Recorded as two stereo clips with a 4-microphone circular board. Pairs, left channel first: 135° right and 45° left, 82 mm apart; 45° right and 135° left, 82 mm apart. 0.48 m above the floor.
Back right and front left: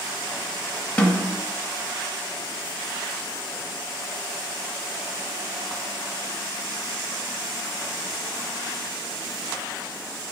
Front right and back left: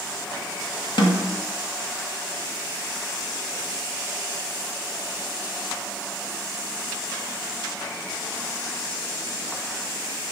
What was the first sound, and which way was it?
A snare drum, 65° right.